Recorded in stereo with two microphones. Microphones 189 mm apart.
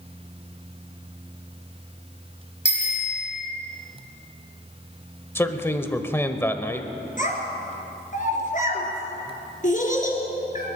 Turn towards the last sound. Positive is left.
turn(degrees=45)  # may be behind; listen again after turning